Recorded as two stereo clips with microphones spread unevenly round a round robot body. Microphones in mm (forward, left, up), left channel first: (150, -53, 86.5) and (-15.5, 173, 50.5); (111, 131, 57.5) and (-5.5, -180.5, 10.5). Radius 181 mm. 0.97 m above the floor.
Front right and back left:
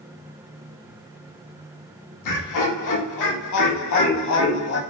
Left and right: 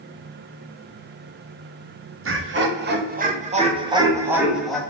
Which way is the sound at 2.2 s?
65° right.